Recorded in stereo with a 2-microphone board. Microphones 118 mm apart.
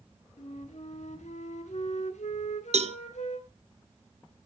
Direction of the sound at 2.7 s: 65° right (ahead or behind).